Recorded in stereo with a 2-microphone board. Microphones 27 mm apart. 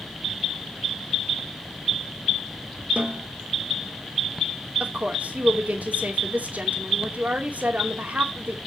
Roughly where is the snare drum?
Right.